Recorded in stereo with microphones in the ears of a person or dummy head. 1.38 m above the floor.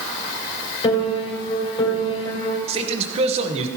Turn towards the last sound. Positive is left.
turn(degrees=-35)  # may be behind; listen again after turning